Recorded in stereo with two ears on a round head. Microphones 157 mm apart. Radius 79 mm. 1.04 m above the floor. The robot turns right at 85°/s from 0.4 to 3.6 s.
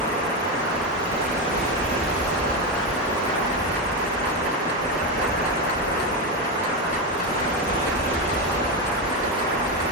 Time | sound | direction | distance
0.0 | running water | 150° left | 0.9 m